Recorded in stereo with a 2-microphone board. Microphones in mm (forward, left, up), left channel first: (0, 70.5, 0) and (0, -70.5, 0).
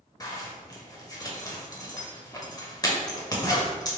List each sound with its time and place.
0.2 s a zipper: 25° left (ahead or behind), 0.8 m